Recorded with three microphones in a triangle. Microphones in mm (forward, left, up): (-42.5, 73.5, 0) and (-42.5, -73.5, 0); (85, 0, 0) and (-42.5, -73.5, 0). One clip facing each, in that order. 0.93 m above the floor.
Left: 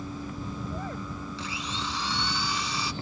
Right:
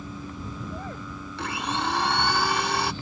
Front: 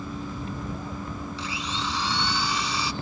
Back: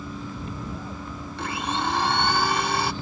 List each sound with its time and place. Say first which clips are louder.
1.4 s a blender: right 11 dB, back 9 dB; 115° right